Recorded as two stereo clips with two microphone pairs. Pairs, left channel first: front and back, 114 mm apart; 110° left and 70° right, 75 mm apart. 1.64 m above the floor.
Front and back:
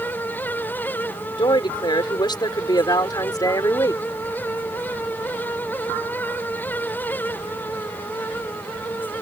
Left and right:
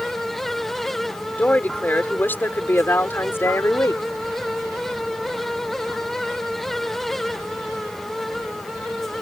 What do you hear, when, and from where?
1.4 s a woman speaking: 45° left; by 4.0 s 60° left